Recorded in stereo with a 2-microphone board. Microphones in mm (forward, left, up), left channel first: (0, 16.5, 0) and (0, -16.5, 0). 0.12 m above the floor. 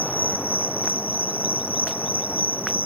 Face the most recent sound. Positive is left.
turn(degrees=-50)  # may be behind; listen again after turning